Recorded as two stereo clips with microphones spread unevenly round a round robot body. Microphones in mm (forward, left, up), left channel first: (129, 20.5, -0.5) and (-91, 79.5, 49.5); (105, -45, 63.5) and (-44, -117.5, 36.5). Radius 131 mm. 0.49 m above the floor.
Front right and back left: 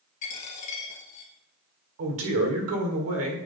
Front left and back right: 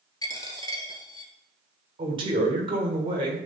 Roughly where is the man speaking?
Behind.